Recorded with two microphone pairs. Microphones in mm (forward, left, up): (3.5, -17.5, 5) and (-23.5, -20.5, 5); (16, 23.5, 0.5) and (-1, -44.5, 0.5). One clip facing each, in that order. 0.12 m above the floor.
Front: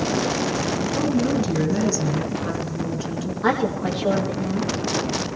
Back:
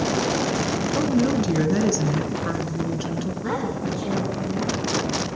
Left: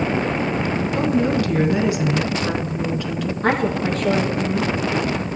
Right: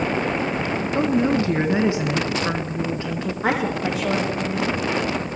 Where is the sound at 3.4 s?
20° right, 4.5 m.